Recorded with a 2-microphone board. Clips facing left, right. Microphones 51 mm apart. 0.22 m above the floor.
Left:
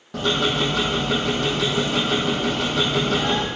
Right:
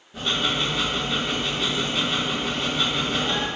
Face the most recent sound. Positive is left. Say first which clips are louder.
# left 4 dB
turn(degrees=75)  # may be behind; listen again after turning